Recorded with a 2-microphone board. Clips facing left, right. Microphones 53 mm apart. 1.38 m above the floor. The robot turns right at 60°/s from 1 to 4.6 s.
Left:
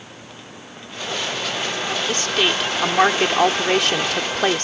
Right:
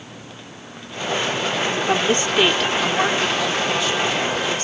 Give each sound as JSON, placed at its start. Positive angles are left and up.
{"t": 1.9, "sound": "a woman speaking", "azimuth_deg": -40}